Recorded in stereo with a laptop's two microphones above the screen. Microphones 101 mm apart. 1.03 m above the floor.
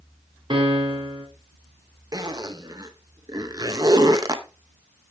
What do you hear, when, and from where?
0.5 s a piano: 55° right (ahead or behind), 3 m
2.1 s a zipper: 40° right (ahead or behind), 0.8 m